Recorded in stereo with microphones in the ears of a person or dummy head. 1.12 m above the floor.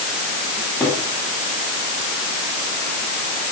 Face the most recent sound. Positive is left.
turn(degrees=15)  # may be behind; listen again after turning